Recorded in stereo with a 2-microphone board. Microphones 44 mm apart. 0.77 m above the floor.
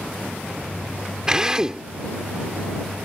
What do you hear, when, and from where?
1.3 s a drill: 15° right (ahead or behind)